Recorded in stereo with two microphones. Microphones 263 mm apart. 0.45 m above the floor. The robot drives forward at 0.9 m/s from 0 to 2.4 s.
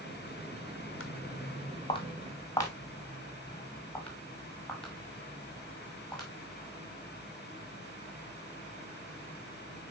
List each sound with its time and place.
1.0 s footsteps: 50° left (ahead or behind), 1.3 m; by 6.3 s centre (ahead or behind), 6.5 m